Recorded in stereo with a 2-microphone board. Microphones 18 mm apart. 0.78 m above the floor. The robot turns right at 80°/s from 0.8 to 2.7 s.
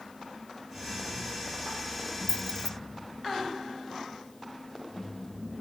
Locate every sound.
2.3 s keys jangling: 75° left (ahead or behind)